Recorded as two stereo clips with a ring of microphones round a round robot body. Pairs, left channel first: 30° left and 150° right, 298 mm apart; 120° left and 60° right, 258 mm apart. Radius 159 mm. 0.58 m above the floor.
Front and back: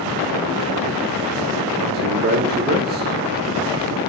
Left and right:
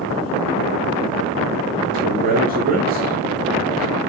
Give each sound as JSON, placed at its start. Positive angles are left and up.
{"t": 1.9, "sound": "a man speaking", "azimuth_deg": -105, "distance_m": 1.7}